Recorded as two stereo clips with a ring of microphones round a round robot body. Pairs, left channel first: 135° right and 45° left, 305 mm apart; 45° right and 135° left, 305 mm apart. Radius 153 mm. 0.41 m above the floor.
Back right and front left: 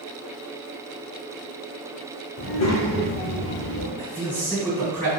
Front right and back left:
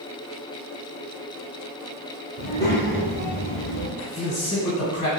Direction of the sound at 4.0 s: 35° right.